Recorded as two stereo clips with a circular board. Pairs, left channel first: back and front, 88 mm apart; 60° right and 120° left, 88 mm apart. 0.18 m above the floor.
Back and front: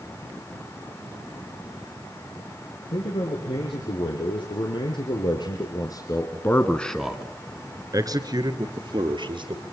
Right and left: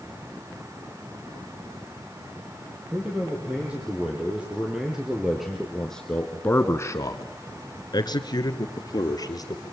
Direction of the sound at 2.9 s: 170° right.